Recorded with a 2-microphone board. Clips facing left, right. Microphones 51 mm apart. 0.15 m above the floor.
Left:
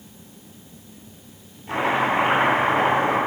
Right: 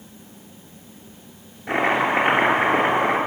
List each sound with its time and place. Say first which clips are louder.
1.7 s chopping: right 1 dB; 60° right (ahead or behind), 3 m